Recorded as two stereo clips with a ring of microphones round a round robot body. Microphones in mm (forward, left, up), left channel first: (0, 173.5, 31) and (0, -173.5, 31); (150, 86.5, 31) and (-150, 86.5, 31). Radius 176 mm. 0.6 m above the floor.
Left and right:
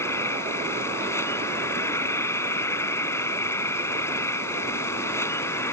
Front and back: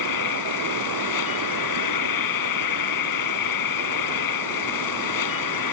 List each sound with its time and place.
0.0 s an insect: 10° left